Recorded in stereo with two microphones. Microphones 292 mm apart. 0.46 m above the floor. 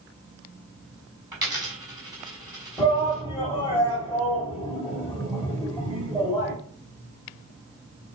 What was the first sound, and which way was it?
A dropped coin, 10° right (ahead or behind).